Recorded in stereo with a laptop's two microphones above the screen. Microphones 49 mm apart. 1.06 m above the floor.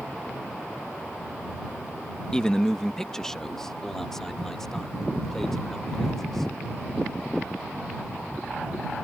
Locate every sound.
2.3 s a man speaking: 15° left (ahead or behind); by 6.5 s 10° left (ahead or behind)